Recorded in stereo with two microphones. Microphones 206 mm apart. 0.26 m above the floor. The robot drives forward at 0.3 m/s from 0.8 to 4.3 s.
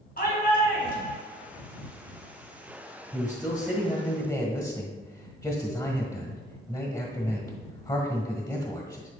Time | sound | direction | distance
0.2 | a shout | 50° left (ahead or behind) | 2.5 m
3.1 | a man speaking | 20° left (ahead or behind) | 1.4 m